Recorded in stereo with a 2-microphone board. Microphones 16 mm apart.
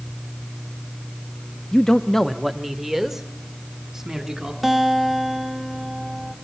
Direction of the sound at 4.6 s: Centre (ahead or behind).